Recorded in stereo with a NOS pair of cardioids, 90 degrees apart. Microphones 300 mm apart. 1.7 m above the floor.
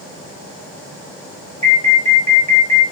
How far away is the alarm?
About 3 m.